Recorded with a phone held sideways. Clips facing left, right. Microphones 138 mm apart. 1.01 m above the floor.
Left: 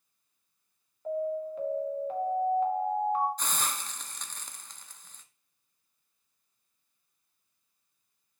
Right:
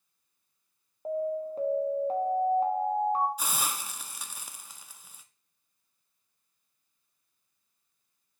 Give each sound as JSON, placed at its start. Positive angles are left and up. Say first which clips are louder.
{"t": 1.1, "sound": "an alarm", "louder": "right 1 dB", "side_deg": -35, "distance_m": 1.5}
{"t": 3.4, "sound": "a hiss", "louder": "right 1 dB", "side_deg": -10, "distance_m": 0.6}